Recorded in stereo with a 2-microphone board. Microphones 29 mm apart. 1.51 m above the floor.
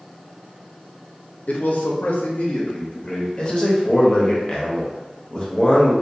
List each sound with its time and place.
1.5 s a man speaking: 60° left (ahead or behind), 0.6 m; by 3.3 s 30° left (ahead or behind), 0.9 m
3.4 s a man speaking: 30° left (ahead or behind), 0.8 m